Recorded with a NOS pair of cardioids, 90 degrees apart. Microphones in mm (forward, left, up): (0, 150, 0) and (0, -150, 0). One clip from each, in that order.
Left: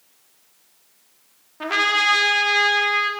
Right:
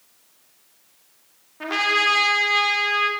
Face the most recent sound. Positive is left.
turn(degrees=20)